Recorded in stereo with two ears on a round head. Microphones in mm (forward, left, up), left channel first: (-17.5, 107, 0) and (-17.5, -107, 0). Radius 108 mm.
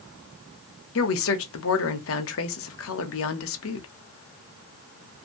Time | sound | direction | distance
0.9 | a woman speaking | 60° left (ahead or behind) | 0.8 m